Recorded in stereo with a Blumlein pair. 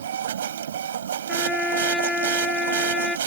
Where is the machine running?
65° right.